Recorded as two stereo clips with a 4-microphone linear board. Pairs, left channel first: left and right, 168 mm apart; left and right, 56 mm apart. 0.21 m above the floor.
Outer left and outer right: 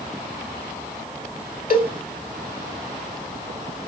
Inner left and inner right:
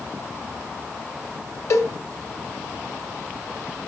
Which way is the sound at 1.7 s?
55° left (ahead or behind).